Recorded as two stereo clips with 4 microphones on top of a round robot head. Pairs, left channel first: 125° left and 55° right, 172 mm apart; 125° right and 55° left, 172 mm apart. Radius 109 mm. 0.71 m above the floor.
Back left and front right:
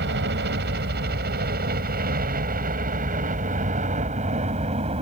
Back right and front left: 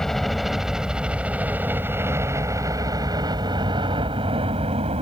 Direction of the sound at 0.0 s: 35° right.